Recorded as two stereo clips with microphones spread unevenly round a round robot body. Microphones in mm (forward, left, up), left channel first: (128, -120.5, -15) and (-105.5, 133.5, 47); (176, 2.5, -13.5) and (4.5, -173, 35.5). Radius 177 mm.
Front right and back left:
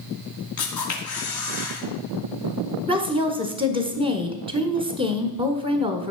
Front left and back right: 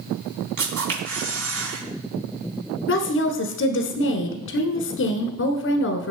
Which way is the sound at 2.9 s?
50° left.